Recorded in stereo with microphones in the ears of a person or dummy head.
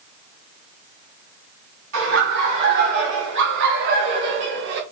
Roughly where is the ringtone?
I don't hear a ringtone.